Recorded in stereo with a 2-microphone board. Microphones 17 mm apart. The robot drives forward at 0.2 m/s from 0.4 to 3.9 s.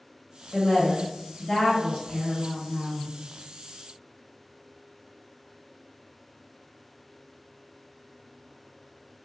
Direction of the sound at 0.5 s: 40° left (ahead or behind).